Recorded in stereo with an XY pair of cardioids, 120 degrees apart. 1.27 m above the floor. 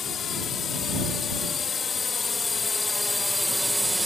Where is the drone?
45° left; by 4.1 s 10° right.